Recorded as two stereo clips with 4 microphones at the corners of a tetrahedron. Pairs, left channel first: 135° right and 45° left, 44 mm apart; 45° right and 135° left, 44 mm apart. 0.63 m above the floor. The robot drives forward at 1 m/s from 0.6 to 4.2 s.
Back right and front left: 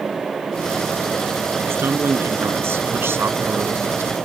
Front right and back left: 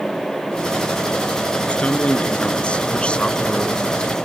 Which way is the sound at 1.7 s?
15° left.